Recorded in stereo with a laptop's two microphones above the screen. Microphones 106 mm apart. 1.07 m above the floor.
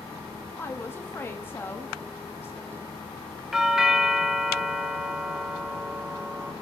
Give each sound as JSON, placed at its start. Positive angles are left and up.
{"t": 0.6, "sound": "a woman speaking", "side_deg": 20, "distance_m": 1.7}
{"t": 3.5, "sound": "a doorbell", "side_deg": -5, "distance_m": 0.7}